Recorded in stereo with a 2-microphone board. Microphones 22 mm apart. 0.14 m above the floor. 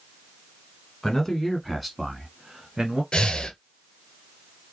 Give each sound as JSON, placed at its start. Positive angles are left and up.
{"t": 1.0, "sound": "a man speaking", "side_deg": 20, "distance_m": 1.2}
{"t": 3.1, "sound": "breathing", "side_deg": 45, "distance_m": 0.8}